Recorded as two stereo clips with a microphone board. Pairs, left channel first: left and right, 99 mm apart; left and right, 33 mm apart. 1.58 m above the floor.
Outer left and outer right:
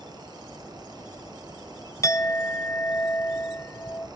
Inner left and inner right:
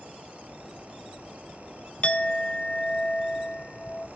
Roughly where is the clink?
Left.